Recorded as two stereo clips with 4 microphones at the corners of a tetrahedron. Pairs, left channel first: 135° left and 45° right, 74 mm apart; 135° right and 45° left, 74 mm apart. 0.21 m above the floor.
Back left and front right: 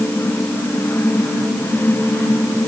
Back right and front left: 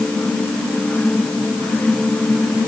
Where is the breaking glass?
No breaking glass in this recording.